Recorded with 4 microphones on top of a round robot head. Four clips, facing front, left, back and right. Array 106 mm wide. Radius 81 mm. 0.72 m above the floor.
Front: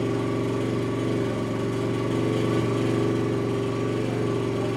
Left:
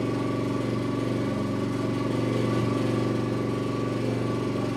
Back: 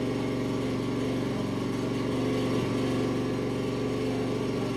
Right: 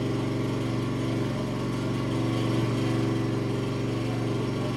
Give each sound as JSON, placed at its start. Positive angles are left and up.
{"t": 0.0, "sound": "an engine running", "azimuth_deg": 30, "distance_m": 0.7}